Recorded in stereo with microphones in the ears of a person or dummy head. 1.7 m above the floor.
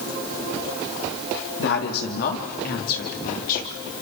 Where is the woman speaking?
75° left (ahead or behind), 4 m; by 3.8 s 60° left (ahead or behind), 6 m.